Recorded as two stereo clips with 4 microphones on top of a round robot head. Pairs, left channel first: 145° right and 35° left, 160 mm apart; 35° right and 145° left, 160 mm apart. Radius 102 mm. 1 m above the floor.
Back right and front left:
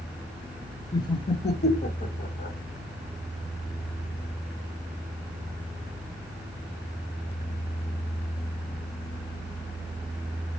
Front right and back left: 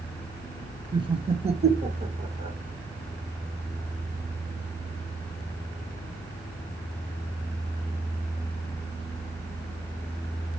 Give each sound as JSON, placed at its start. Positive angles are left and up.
{"t": 0.9, "sound": "laughter", "azimuth_deg": 170, "distance_m": 0.7}